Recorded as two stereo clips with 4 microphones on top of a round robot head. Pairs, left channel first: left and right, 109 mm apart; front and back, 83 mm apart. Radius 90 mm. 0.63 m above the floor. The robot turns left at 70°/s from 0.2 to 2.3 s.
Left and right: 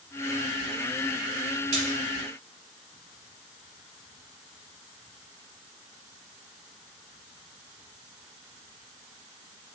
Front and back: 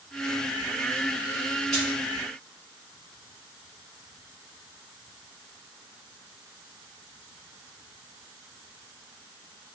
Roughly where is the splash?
Right.